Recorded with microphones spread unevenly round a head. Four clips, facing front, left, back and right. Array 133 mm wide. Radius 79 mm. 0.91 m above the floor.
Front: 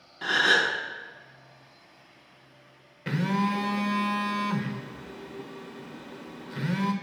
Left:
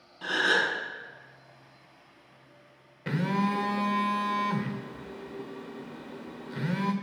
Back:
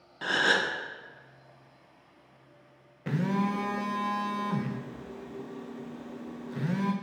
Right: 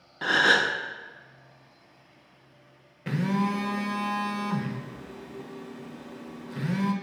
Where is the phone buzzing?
5° right, 0.7 m.